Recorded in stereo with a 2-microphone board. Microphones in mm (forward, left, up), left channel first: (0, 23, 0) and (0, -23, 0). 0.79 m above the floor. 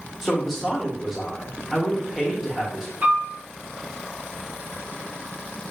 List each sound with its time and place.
0.2 s a woman speaking: 5° right (ahead or behind), 1.0 m
3.0 s a piano: 55° right (ahead or behind), 1.6 m